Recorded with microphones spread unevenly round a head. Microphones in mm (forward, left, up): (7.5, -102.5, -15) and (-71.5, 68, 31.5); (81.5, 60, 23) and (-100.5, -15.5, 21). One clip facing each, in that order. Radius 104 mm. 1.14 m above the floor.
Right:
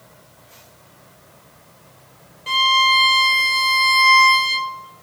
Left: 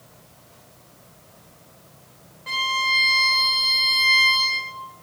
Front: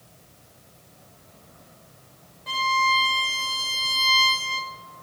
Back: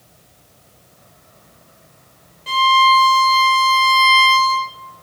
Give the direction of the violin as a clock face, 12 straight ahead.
3 o'clock.